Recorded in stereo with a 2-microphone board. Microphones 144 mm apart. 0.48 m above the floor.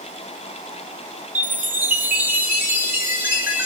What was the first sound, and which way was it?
A chime, 15° right (ahead or behind).